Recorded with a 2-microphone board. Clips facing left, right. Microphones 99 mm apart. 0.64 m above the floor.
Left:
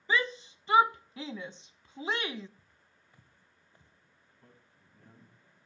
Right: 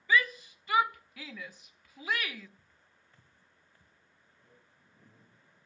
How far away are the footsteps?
About 4 m.